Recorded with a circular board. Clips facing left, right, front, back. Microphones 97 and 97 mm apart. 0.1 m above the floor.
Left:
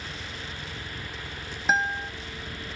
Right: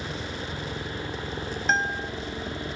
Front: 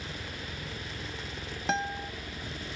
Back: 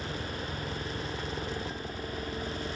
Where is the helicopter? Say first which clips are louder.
Right 6 dB, back 5 dB; 120° right.